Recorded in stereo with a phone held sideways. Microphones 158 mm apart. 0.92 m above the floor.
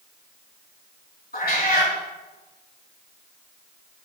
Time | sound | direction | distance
1.3 | a cat meowing | 75° left (ahead or behind) | 3 m